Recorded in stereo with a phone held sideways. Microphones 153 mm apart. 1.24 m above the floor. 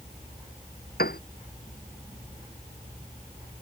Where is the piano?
80° left.